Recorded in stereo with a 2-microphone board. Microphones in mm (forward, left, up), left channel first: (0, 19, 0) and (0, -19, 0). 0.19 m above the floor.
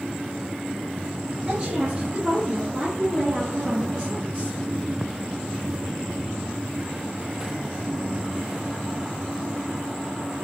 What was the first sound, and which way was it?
A woman speaking, 30° right (ahead or behind).